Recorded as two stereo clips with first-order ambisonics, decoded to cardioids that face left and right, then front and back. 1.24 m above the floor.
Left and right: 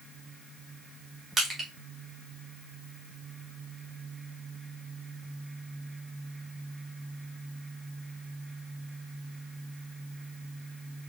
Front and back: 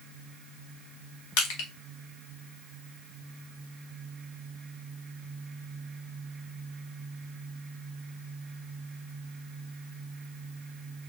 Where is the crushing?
15° right, 1.5 m.